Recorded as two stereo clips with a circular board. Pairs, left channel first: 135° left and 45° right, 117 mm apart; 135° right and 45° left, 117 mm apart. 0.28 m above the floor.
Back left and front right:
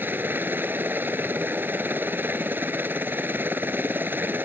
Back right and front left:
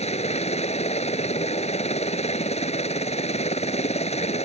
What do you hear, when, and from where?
0.0 s a helicopter: 120° right